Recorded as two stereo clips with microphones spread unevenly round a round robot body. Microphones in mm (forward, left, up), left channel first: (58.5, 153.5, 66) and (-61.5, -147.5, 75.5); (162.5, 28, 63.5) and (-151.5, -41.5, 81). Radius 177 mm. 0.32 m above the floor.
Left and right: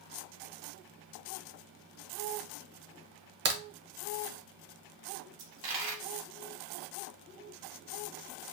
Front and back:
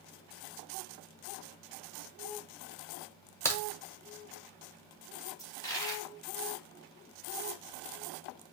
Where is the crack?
65° right, 0.7 m.